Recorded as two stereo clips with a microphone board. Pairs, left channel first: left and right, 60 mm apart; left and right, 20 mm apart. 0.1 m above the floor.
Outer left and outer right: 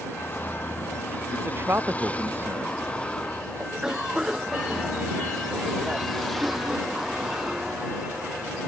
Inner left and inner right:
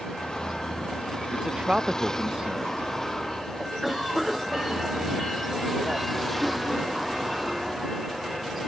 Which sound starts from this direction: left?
A vehicle, at 0.0 s.